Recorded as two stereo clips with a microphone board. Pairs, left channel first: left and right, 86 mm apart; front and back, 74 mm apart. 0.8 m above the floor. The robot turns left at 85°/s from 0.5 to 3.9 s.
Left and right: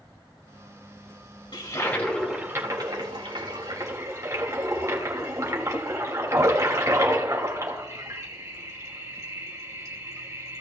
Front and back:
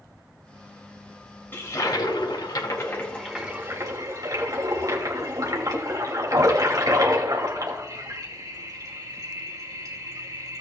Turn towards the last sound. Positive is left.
turn(degrees=-140)